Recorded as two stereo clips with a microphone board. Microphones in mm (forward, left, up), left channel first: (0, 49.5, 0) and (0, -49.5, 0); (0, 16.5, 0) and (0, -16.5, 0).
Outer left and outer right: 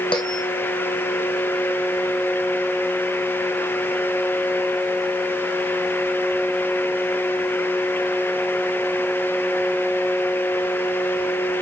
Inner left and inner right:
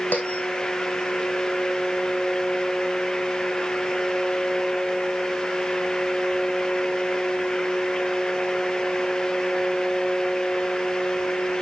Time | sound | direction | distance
0.1 | a bell | 60° left (ahead or behind) | 2.5 m